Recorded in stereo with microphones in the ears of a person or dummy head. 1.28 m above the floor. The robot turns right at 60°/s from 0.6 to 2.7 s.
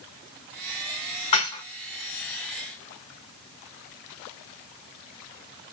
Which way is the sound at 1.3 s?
35° left (ahead or behind).